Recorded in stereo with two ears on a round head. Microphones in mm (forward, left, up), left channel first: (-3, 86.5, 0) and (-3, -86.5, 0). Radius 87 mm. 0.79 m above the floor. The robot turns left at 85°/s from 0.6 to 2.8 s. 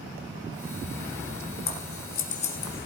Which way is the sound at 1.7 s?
50° left (ahead or behind).